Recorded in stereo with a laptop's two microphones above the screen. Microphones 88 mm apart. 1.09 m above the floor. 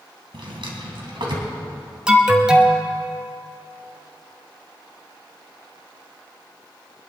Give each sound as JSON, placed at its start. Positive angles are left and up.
{"t": 0.3, "sound": "a drawer", "side_deg": -70, "distance_m": 3.0}
{"t": 2.1, "sound": "an alarm", "side_deg": -10, "distance_m": 1.0}